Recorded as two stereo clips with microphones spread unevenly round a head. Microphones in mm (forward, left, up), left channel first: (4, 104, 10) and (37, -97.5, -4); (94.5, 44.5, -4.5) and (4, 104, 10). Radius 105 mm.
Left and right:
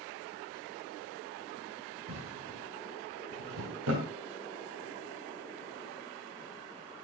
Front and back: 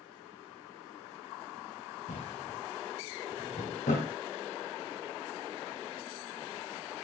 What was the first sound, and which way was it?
A drawer, 70° right.